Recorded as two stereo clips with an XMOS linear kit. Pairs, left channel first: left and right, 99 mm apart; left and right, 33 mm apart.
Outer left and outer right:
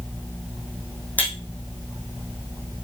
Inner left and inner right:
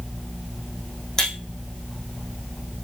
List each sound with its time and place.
1.2 s breaking glass: 15° left (ahead or behind), 3 m